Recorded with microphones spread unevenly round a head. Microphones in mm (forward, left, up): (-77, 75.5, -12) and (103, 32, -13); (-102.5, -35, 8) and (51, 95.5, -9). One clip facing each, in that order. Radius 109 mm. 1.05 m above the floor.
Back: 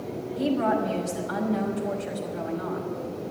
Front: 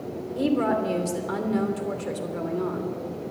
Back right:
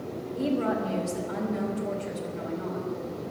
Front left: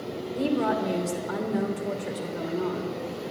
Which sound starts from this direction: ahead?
A woman speaking, at 0.4 s.